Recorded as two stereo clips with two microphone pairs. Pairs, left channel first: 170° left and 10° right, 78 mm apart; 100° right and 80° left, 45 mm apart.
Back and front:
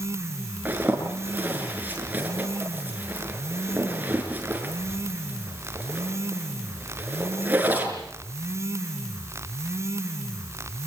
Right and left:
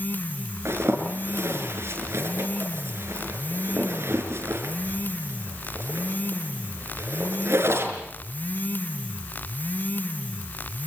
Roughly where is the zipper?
Ahead left.